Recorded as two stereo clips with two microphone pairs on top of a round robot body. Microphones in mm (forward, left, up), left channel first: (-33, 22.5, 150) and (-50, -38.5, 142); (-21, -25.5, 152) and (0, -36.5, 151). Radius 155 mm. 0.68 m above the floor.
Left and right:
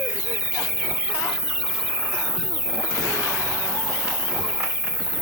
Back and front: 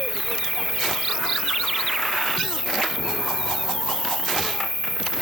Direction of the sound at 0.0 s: 130° left.